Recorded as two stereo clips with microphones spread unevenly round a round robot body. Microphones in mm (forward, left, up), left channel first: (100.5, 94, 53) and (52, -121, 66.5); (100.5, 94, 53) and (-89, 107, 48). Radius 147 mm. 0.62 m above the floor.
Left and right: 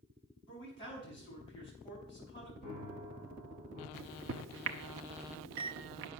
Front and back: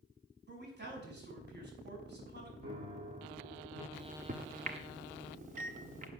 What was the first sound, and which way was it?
A man speaking, 150° left.